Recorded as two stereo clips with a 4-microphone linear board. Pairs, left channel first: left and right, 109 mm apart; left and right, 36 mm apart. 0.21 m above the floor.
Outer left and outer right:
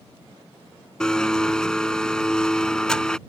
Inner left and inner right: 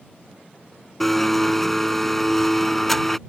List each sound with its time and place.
1.0 s a blender: 5° left (ahead or behind)